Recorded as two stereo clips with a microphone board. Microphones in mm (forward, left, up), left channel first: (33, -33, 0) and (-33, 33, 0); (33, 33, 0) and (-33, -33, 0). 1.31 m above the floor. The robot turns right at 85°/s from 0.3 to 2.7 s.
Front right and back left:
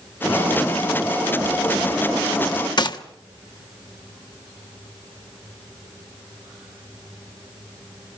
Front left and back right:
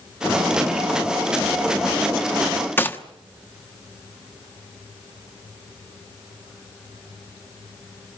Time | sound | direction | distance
2.8 | a gunshot | 20° right | 1.1 m